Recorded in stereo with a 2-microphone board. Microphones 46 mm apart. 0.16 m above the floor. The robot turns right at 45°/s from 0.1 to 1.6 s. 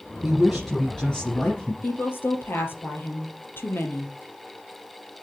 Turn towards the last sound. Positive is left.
turn(degrees=55)  # may be behind; listen again after turning